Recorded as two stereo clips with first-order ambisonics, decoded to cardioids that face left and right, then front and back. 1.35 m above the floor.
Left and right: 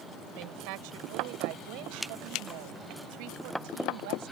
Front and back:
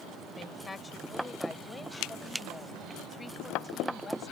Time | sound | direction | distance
0.3 | a woman speaking | 75° right | ?